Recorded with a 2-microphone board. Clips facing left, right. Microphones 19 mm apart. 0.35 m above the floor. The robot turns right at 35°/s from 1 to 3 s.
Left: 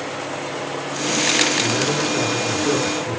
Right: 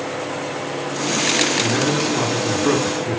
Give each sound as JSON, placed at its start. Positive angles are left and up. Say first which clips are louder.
{"t": 1.6, "sound": "a man speaking", "louder": "right 1 dB", "azimuth_deg": -110, "distance_m": 5.5}